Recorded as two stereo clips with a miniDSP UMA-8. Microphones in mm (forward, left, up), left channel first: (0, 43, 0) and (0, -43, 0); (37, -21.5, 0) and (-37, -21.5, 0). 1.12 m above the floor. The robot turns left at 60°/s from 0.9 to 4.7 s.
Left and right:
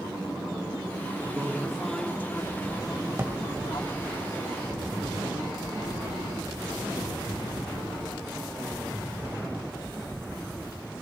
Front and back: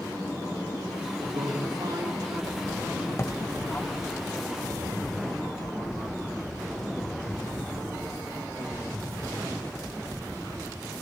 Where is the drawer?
30° right, 1.2 m; by 3.4 s 45° right, 1.2 m.